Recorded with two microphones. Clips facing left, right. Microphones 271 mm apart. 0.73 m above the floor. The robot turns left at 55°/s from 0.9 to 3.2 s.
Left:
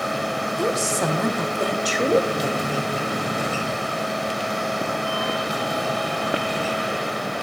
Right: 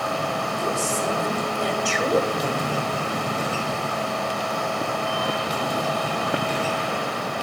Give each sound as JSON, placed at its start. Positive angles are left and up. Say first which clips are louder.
{"t": 0.6, "sound": "a woman speaking", "louder": "left 5 dB", "azimuth_deg": 95, "distance_m": 2.5}